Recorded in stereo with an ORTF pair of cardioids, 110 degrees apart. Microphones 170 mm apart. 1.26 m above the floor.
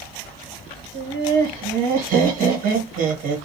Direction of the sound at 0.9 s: 60° right.